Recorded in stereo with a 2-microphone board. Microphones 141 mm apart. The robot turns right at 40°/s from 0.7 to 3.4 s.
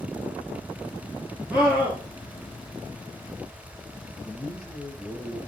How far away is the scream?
About 3 m.